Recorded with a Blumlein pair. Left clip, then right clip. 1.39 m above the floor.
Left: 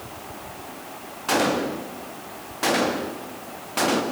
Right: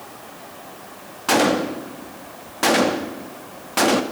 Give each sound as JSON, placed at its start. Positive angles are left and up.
{"t": 1.3, "sound": "a gunshot", "azimuth_deg": -20, "distance_m": 2.0}